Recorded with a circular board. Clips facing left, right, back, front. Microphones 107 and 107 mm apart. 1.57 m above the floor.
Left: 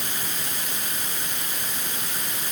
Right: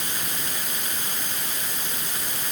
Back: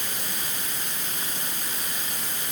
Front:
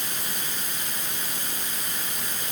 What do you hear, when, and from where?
Only background noise.